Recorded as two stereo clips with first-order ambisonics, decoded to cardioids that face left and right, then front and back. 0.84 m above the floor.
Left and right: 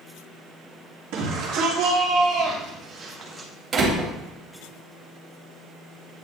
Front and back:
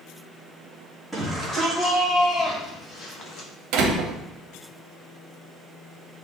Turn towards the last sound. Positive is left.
turn(degrees=-155)